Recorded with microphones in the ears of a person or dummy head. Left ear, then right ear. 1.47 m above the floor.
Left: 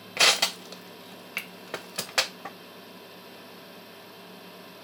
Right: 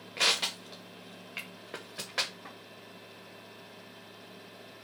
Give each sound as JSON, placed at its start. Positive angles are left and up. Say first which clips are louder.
{"t": 0.2, "sound": "crushing", "louder": "left 6 dB", "side_deg": 35, "distance_m": 0.7}